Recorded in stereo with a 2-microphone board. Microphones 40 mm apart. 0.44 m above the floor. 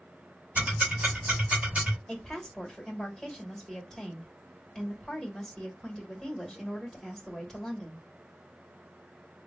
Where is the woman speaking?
10° left (ahead or behind), 1.6 m.